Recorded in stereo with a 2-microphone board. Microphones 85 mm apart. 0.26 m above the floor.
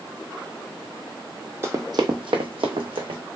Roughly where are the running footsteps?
Right.